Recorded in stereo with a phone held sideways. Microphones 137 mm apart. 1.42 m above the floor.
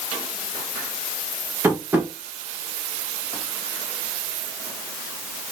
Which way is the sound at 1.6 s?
15° right (ahead or behind).